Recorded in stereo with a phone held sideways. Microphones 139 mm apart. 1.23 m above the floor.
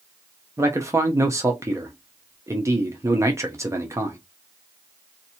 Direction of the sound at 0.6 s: 20° right (ahead or behind).